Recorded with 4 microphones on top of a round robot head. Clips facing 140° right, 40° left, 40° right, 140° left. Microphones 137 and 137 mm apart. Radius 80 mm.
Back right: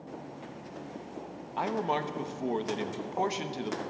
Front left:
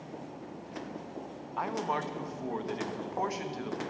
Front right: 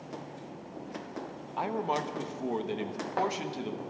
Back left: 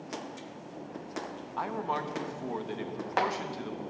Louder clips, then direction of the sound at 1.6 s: Back right 3 dB, front right 2 dB; 95° right.